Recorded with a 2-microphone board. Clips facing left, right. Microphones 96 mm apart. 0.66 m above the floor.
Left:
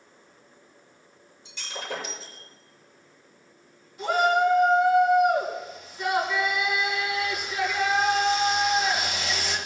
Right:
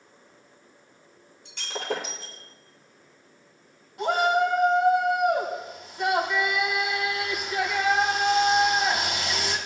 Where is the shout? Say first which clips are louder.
Left 1 dB; 65° right (ahead or behind), 4.5 m.